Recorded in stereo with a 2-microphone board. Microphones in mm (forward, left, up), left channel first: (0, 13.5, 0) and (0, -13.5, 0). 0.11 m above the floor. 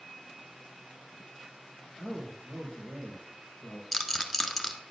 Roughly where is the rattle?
Centre.